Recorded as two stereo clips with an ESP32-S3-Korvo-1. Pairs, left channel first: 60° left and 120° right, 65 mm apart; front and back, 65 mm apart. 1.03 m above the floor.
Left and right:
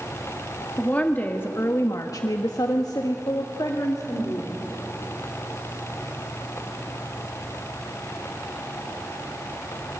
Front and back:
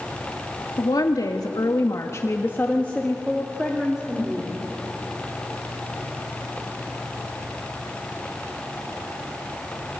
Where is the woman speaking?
10° right, 2 m; by 4.6 s 105° left, 3.5 m.